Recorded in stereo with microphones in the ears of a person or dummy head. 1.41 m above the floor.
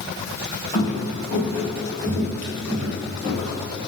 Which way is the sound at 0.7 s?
30° left (ahead or behind).